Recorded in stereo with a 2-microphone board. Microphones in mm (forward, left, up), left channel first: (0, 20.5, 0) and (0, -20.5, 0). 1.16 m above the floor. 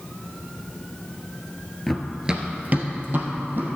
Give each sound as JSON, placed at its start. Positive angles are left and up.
{"t": 1.9, "sound": "running footsteps", "side_deg": 5, "distance_m": 1.2}